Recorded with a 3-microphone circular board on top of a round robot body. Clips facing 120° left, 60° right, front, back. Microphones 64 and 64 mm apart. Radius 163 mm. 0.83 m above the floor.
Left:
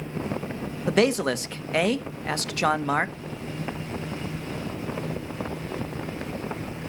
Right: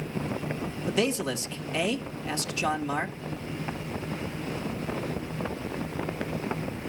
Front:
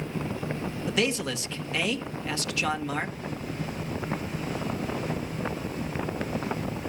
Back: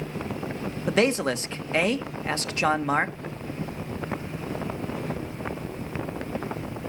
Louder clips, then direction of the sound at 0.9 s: Left 6 dB, back 6 dB; 140° left.